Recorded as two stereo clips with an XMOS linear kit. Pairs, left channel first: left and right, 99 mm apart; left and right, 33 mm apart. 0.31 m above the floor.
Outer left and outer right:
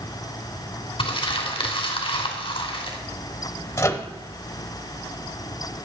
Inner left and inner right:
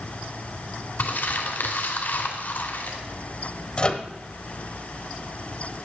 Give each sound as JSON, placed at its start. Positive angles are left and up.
{"t": 1.0, "sound": "crumpling", "side_deg": 65, "distance_m": 2.5}
{"t": 3.8, "sound": "a microwave", "side_deg": 30, "distance_m": 0.8}